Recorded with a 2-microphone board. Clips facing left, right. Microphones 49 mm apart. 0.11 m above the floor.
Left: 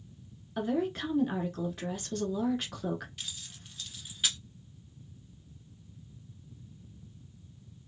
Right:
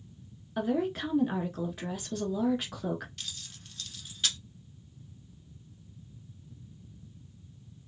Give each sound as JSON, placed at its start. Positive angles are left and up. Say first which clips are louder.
{"t": 0.6, "sound": "a woman speaking", "louder": "right 1 dB", "side_deg": -5, "distance_m": 1.2}
{"t": 3.2, "sound": "keys jangling", "louder": "even", "side_deg": 10, "distance_m": 0.7}